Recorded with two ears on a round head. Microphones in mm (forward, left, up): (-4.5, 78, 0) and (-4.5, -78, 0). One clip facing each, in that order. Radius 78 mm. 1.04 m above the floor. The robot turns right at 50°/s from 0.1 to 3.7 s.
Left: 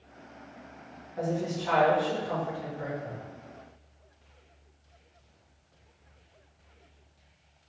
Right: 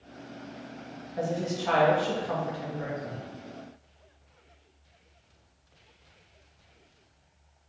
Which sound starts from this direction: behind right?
A woman speaking, at 1.2 s.